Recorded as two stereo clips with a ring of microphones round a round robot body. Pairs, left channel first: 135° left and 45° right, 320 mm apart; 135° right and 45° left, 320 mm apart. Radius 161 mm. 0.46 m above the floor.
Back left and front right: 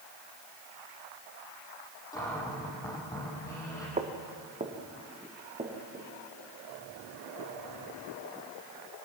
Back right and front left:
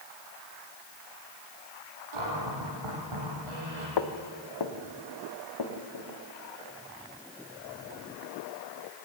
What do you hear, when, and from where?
2.1 s a cupboard door: 55° left, 5.5 m
4.0 s footsteps: 115° right, 2.0 m; by 6.1 s 120° right, 4 m